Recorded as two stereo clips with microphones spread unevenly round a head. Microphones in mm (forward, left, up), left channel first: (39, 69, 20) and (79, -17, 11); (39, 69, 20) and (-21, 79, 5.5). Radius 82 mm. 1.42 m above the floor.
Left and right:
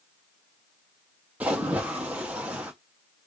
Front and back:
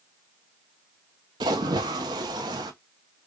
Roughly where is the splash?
Behind right.